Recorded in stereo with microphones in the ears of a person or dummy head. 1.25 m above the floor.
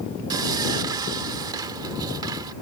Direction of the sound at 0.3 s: 20° right (ahead or behind).